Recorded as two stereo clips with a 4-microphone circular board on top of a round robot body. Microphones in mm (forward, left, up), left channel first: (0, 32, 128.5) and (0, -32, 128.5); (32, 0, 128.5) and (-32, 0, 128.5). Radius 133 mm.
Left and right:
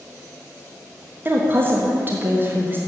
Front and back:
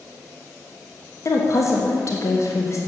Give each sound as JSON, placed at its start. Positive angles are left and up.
{"t": 1.2, "sound": "a woman speaking", "azimuth_deg": -35, "distance_m": 1.5}